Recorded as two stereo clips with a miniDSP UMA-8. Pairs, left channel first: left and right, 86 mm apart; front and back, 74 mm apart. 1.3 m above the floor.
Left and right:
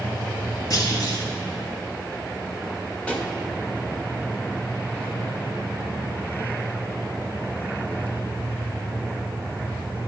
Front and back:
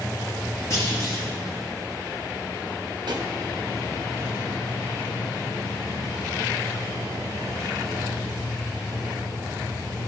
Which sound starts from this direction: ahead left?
A clunk, at 0.7 s.